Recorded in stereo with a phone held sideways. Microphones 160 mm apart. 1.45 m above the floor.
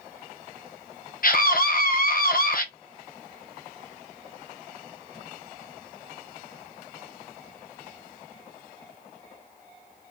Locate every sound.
1.2 s a scream: 65° left (ahead or behind), 0.9 m